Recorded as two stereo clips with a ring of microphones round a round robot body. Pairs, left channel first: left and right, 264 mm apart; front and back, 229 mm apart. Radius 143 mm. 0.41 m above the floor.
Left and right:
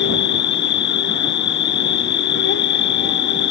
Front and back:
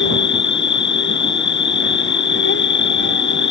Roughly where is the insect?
Ahead left.